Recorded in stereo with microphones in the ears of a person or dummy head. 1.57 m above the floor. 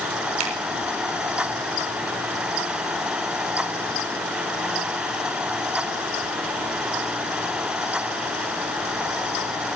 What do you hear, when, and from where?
0.4 s a finger snap: 90° right, 7.5 m